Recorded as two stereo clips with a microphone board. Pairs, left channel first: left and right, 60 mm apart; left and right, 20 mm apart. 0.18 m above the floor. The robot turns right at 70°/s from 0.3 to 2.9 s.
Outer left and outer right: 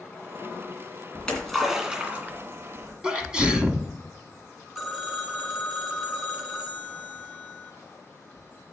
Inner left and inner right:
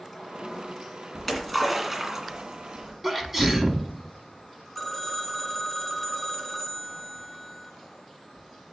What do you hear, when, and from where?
1.1 s a splash: 20° left (ahead or behind), 2.5 m; by 2.9 s 45° right (ahead or behind), 2.5 m
3.0 s a sneeze: 15° right (ahead or behind), 1.2 m
4.8 s a phone ringing: centre (ahead or behind), 1.4 m